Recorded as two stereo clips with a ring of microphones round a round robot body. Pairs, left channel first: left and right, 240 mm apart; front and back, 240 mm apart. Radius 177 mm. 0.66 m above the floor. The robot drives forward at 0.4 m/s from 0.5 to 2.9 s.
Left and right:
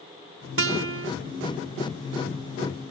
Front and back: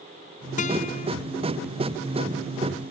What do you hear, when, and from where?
0.6 s a guitar: 65° right